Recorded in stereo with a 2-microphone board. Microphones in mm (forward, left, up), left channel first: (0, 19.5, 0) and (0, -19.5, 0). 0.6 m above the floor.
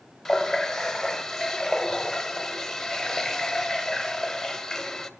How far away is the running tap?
About 1.5 m.